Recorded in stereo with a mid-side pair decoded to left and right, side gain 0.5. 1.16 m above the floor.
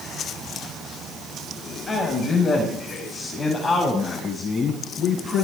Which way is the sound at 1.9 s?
30° left.